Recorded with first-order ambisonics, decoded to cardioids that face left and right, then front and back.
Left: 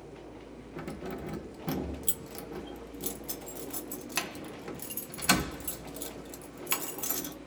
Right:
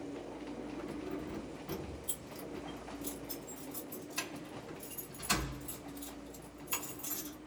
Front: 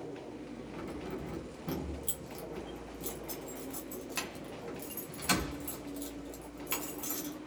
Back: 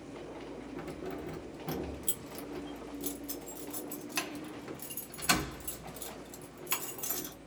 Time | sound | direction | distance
0.8 | keys jangling | 100° left | 0.7 m